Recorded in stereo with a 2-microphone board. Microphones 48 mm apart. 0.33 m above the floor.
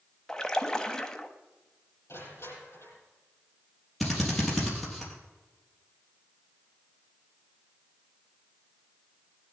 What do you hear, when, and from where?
0.3 s a splash: 15° left (ahead or behind), 1.0 m
2.1 s crushing: 65° left (ahead or behind), 7 m
4.0 s a drill: centre (ahead or behind), 4.5 m